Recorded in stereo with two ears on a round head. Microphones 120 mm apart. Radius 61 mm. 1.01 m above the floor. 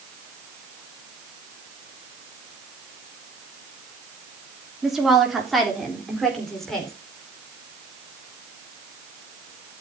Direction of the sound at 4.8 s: 5° right (ahead or behind).